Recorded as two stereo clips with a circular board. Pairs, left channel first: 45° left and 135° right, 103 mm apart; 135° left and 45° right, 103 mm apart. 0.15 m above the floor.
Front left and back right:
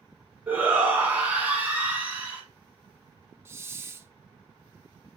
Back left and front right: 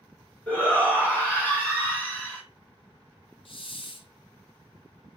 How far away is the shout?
About 1.2 m.